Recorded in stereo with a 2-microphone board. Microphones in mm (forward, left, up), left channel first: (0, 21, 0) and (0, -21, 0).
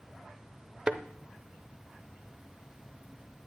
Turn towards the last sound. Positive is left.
turn(degrees=-25)  # may be behind; listen again after turning